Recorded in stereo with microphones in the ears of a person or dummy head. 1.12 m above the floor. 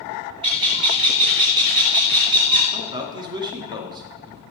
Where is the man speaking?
30° right (ahead or behind), 2 m.